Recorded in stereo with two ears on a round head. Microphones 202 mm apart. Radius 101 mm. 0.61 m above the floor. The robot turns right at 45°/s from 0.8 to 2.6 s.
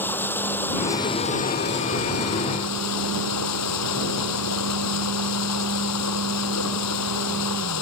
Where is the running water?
10° left; by 7.8 s 90° left.